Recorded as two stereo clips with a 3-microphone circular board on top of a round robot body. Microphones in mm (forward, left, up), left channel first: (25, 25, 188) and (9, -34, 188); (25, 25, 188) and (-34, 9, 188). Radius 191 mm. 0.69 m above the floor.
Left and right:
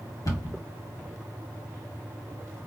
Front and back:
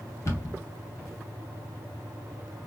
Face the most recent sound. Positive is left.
turn(degrees=60)